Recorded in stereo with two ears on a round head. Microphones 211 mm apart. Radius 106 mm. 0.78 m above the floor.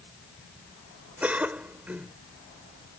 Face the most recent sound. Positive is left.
turn(degrees=-5)  # may be behind; listen again after turning